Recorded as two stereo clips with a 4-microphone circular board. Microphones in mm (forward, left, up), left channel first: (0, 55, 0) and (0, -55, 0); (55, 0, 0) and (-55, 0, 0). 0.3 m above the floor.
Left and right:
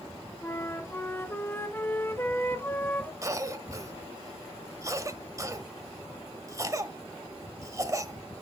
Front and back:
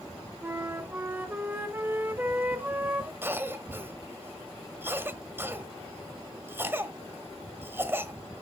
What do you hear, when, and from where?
0.4 s a flute: 130° left, 0.8 m
3.2 s a cough: 125° right, 1.1 m